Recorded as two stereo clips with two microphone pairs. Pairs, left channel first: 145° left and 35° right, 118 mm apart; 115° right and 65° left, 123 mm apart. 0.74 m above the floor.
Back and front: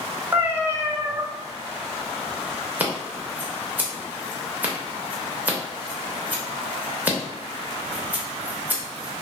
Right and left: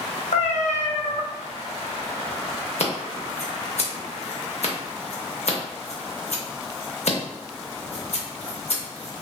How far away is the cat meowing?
About 0.6 m.